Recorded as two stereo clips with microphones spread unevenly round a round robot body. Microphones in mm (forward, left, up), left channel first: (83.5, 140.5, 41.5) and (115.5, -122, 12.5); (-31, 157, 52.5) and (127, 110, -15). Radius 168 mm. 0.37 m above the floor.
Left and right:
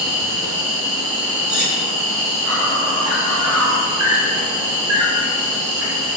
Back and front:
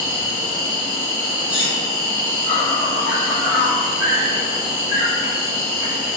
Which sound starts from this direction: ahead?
Cutlery clinking, at 1.5 s.